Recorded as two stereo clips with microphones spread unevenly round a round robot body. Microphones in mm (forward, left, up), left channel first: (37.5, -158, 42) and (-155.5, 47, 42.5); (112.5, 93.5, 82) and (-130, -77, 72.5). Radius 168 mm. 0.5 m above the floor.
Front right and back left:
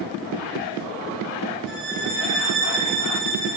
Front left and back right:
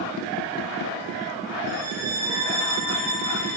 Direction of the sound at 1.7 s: Straight behind.